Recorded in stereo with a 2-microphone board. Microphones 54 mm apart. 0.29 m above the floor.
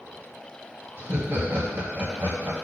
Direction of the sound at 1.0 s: 50° right (ahead or behind).